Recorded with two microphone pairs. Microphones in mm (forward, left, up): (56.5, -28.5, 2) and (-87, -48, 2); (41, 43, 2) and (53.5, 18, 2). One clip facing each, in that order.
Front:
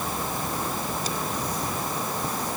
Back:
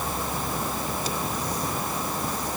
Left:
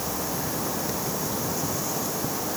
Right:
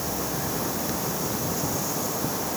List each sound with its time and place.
Only background noise.